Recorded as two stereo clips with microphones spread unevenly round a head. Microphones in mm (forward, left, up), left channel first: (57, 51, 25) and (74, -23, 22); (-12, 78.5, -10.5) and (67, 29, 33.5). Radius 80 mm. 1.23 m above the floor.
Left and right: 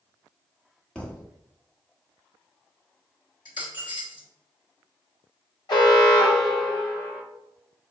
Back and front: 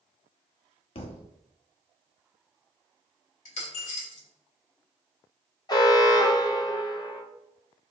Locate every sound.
0.9 s a thud: 175° left, 0.6 m
3.5 s a dropped coin: 155° left, 1.3 m
5.7 s an alarm: 95° left, 1.1 m